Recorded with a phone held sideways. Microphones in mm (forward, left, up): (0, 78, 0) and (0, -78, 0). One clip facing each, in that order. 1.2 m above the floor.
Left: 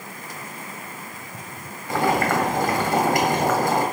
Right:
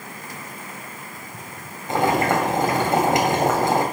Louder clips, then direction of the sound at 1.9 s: Right 1 dB; 25° right (ahead or behind).